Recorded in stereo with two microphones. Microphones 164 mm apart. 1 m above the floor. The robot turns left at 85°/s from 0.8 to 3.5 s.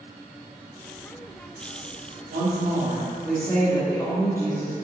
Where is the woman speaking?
95° right, 2.0 m; by 4.7 s 160° left, 2.0 m.